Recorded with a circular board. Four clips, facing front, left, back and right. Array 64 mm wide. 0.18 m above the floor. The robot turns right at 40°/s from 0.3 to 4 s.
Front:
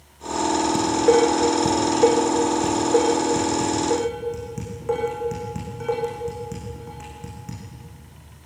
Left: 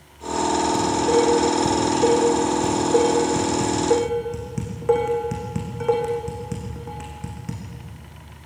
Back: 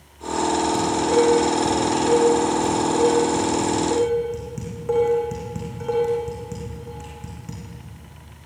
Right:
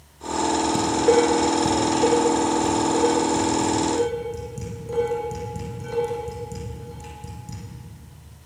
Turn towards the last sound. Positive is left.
turn(degrees=85)